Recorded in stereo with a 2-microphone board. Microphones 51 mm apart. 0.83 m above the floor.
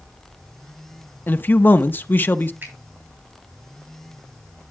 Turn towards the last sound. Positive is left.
turn(degrees=-40)  # may be behind; listen again after turning